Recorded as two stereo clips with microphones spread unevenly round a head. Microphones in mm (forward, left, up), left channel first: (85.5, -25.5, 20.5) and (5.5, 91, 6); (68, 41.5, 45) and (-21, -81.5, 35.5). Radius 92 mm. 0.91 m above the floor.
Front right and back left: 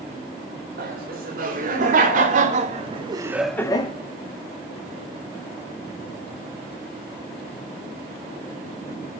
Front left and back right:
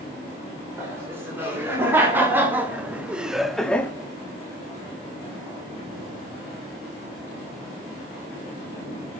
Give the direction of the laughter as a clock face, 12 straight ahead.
7 o'clock.